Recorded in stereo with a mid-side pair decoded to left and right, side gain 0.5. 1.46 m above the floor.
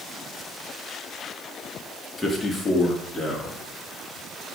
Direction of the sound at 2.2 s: 25° left.